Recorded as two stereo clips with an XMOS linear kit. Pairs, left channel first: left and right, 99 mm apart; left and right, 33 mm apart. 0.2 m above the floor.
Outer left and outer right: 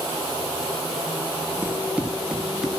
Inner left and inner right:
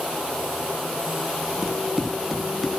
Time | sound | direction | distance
1.6 | running footsteps | 15° right (ahead or behind) | 4 m